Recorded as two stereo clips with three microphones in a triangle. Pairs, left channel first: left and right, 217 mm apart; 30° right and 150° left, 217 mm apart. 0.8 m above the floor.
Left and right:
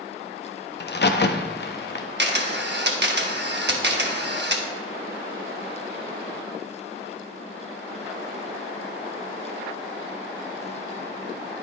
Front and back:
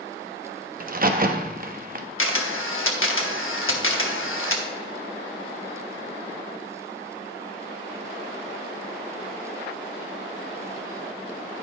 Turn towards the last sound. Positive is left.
turn(degrees=-50)